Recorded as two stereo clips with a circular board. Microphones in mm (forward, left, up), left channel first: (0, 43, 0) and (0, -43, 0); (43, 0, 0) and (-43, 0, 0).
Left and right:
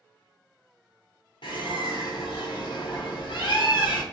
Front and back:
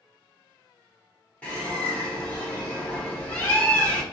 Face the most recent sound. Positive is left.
turn(degrees=75)